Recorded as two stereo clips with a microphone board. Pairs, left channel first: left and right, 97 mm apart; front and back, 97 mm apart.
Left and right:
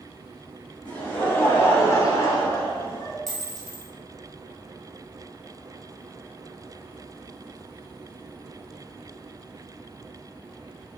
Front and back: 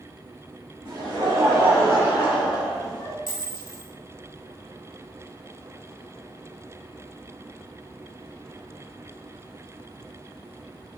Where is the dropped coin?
145° right, 0.9 m.